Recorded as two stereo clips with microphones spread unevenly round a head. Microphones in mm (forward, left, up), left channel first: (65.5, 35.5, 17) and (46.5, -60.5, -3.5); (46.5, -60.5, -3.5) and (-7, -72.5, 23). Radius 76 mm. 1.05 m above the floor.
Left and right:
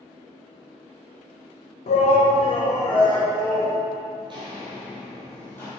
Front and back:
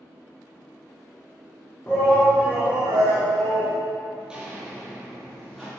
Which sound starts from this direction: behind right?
Footsteps, at 4.2 s.